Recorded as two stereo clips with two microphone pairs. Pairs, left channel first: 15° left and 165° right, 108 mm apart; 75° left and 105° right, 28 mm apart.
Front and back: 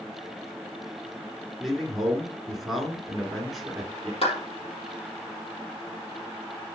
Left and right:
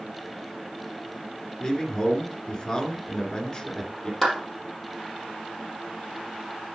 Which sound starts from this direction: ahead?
A clap, at 4.2 s.